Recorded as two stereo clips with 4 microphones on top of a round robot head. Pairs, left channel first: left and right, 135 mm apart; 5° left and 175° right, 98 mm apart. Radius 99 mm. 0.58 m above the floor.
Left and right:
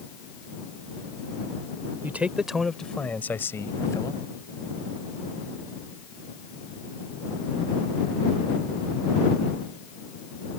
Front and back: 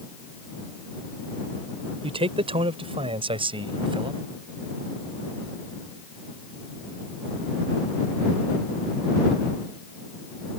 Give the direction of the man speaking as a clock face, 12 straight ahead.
6 o'clock.